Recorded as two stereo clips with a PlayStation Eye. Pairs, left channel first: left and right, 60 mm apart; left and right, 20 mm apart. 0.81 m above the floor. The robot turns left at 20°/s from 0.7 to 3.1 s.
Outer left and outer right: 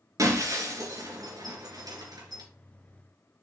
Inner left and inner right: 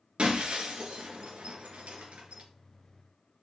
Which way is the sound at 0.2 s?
55° right (ahead or behind).